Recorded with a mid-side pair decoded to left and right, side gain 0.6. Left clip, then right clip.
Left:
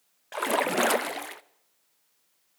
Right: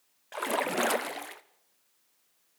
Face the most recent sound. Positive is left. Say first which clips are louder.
# left 4 dB
turn(degrees=20)